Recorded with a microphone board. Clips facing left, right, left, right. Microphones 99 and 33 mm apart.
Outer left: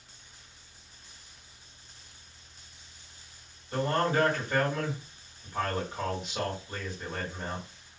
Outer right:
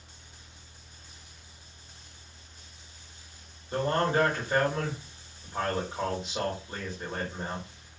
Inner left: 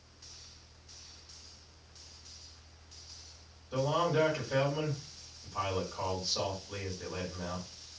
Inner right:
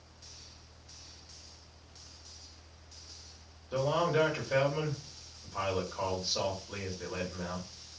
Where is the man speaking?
25° right (ahead or behind), 1.7 m.